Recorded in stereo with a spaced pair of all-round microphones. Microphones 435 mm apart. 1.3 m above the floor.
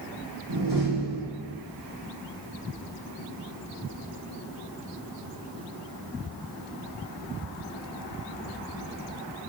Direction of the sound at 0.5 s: 75° right (ahead or behind).